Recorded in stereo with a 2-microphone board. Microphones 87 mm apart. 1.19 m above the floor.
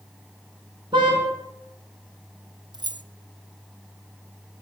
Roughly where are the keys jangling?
Right.